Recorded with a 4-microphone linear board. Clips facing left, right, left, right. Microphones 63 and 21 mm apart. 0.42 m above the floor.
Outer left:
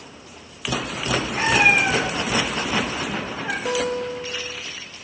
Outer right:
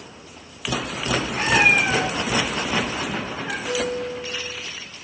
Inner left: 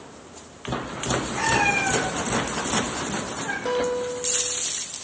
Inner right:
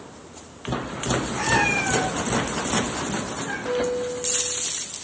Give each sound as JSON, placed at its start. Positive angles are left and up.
{"t": 1.4, "sound": "a cat meowing", "side_deg": 10, "distance_m": 8.0}
{"t": 3.6, "sound": "a guitar", "side_deg": 50, "distance_m": 2.5}